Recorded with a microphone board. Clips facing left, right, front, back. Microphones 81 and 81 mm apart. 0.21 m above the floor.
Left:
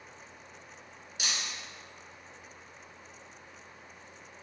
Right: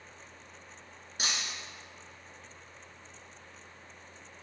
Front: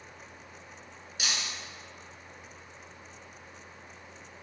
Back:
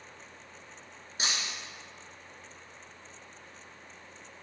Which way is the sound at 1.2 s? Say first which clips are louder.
Right 1 dB, back 1 dB; 130° right.